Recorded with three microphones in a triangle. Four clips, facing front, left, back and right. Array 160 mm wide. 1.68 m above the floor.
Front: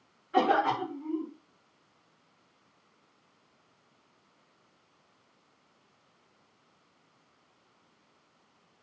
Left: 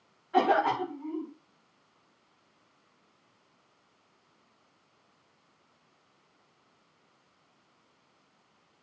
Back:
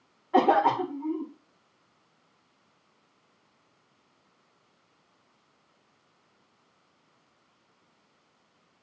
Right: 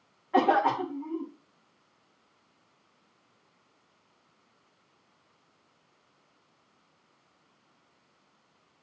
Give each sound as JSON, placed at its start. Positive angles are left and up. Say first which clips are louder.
{"t": 0.3, "sound": "a cough", "louder": "right 1 dB, back 4 dB", "azimuth_deg": -170, "distance_m": 5.0}